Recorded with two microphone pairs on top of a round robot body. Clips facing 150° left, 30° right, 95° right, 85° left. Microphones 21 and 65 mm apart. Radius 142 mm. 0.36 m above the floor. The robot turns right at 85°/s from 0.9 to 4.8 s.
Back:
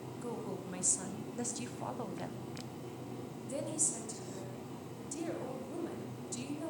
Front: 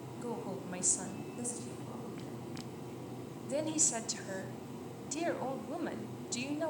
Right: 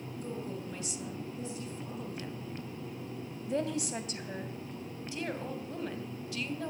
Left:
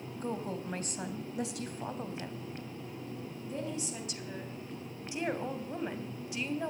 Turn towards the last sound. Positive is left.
turn(degrees=15)